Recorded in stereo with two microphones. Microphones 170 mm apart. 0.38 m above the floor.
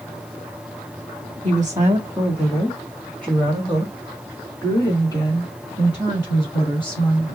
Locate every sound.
1.4 s a woman speaking: 25° right (ahead or behind), 1.2 m; by 7.3 s 30° left (ahead or behind), 3.5 m